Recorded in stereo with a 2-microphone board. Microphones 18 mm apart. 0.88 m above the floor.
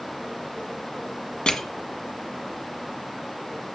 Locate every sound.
1.5 s crushing: 70° left (ahead or behind), 1.6 m